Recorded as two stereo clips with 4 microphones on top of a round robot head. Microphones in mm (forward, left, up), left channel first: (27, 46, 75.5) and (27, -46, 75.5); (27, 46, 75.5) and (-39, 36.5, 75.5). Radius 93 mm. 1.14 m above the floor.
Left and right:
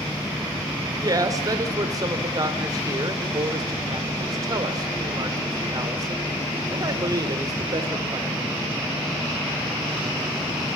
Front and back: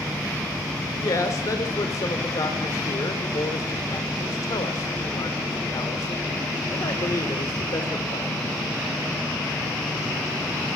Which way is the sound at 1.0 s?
40° right.